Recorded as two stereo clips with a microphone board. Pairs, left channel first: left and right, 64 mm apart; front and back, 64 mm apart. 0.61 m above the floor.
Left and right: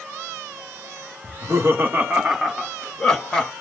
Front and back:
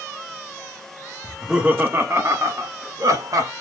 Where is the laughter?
95° right, 1.2 m; by 3.5 s 165° left, 2 m.